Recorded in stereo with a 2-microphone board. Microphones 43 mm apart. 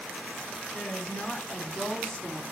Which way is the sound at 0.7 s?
20° left (ahead or behind).